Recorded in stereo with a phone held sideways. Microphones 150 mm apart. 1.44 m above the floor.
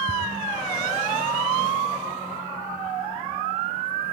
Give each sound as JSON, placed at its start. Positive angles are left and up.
{"t": 0.1, "sound": "ticking", "side_deg": -10, "distance_m": 3.0}